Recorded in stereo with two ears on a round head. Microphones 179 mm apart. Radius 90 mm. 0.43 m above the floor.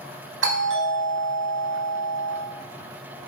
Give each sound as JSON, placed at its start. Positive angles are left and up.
{"t": 0.4, "sound": "a doorbell", "side_deg": -70, "distance_m": 4.0}